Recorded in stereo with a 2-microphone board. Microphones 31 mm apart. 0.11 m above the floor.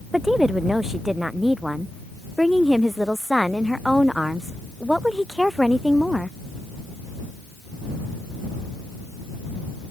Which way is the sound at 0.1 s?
10° right (ahead or behind).